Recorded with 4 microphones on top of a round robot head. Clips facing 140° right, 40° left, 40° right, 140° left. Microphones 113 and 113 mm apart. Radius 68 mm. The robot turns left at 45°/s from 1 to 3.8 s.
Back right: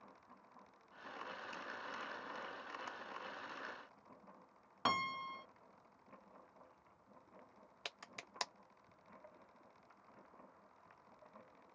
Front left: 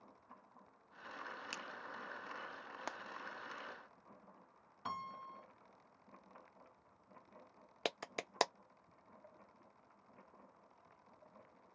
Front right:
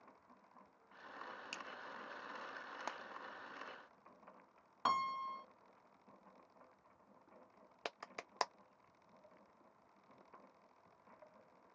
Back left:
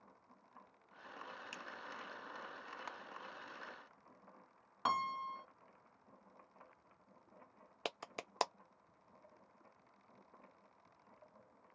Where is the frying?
15° left; by 3.0 s 10° left.